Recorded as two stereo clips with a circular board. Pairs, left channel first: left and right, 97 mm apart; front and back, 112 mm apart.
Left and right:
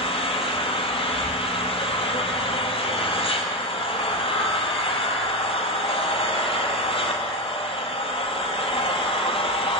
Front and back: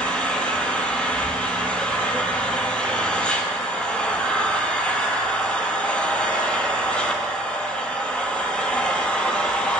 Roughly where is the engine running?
Left.